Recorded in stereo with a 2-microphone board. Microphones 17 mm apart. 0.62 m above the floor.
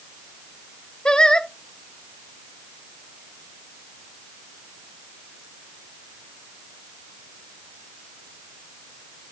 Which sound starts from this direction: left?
Singing, at 1.1 s.